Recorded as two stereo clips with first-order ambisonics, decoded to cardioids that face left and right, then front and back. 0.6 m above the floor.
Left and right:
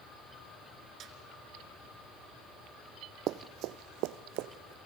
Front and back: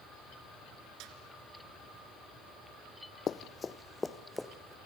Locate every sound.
1.0 s a snare drum: 145° right, 2.5 m
3.3 s running footsteps: 60° right, 0.9 m; by 4.8 s 95° right, 1.8 m